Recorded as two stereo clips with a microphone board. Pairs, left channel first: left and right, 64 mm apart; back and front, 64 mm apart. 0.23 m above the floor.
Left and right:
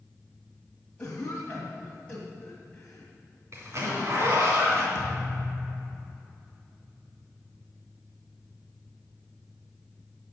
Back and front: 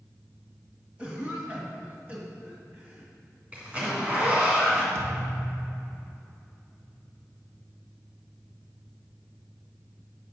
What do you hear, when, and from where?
1.0 s a cough: 35° left, 1.7 m
3.5 s a zipper: 65° right, 3 m
5.0 s a thud: 45° left, 2.5 m